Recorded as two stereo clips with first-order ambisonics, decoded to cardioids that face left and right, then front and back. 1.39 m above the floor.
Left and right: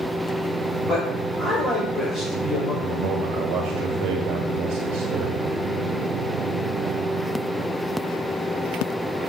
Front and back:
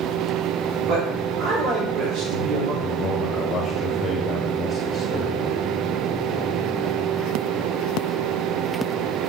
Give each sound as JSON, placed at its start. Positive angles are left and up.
{"t": 0.9, "sound": "a man speaking", "azimuth_deg": 175, "distance_m": 3.5}
{"t": 2.8, "sound": "a man speaking", "azimuth_deg": -70, "distance_m": 1.6}